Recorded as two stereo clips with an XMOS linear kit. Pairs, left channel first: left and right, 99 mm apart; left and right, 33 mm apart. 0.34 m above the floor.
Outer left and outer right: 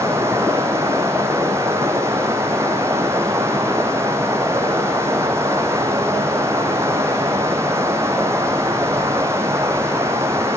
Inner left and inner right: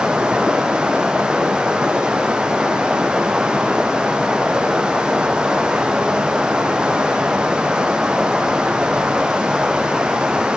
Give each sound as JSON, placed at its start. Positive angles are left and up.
{"t": 0.0, "sound": "running water", "side_deg": -25, "distance_m": 4.5}